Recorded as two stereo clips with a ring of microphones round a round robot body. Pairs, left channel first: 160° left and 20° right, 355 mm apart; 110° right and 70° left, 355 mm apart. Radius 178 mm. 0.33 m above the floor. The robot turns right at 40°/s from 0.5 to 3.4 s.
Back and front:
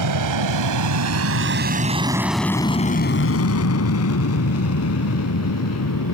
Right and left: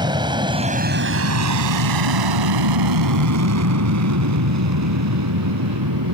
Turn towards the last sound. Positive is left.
turn(degrees=110)